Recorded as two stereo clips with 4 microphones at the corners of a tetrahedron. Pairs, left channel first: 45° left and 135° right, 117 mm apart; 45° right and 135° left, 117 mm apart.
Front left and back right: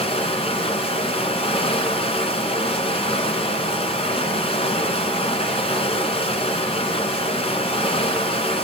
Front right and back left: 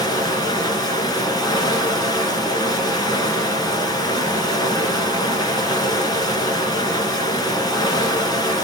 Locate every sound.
0.0 s running water: 10° left, 2 m